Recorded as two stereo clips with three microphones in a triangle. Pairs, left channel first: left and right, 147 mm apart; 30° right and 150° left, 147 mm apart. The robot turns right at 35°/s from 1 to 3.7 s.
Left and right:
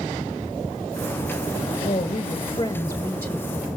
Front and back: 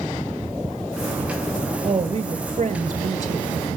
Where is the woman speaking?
105° left, 2 m; by 3.6 s 170° left, 2 m.